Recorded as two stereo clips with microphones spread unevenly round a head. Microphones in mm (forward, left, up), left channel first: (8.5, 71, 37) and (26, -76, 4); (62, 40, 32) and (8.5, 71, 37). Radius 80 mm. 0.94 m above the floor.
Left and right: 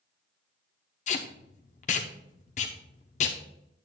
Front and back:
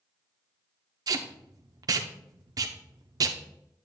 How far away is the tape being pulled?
About 0.8 m.